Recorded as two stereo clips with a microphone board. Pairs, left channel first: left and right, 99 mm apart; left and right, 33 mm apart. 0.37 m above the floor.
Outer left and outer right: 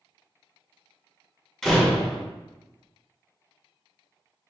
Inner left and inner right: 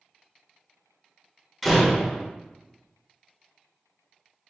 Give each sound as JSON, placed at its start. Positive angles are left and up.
{"t": 1.6, "sound": "a door slam", "side_deg": 5, "distance_m": 0.8}